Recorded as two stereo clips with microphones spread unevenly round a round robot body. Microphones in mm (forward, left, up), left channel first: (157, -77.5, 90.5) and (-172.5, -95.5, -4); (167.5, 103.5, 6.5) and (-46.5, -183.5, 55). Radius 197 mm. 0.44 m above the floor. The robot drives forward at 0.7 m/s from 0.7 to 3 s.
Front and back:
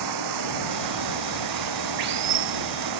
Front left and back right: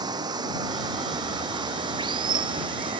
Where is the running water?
155° left.